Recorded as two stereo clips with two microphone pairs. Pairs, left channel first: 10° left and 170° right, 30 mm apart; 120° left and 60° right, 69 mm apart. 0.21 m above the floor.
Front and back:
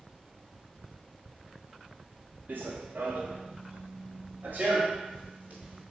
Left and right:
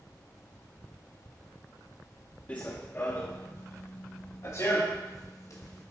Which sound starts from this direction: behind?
Running footsteps, at 2.5 s.